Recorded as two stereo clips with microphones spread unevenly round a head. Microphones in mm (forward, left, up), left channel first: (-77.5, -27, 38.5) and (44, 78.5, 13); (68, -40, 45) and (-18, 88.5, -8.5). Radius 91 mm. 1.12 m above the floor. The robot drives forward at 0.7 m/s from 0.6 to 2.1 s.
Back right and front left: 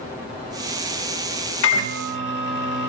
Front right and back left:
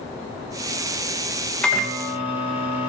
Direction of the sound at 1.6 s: 145° right.